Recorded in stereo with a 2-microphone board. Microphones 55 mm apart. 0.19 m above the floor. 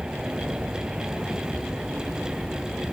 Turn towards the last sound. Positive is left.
turn(degrees=-15)  # may be behind; listen again after turning